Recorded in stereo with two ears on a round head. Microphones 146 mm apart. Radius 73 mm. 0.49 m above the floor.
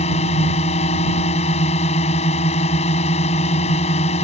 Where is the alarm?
I don't hear an alarm.